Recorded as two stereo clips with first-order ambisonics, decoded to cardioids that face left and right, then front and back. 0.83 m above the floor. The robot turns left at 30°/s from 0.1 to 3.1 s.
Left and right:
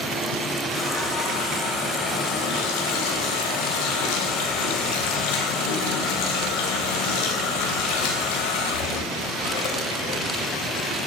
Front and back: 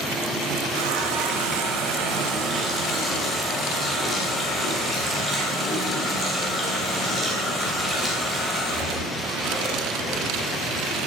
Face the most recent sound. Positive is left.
turn(degrees=90)